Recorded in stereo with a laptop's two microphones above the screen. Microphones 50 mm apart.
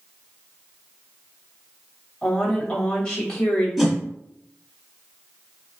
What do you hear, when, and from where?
2.2 s a woman speaking: 20° left (ahead or behind), 2.5 m
3.8 s a whoosh: 5° left (ahead or behind), 1.8 m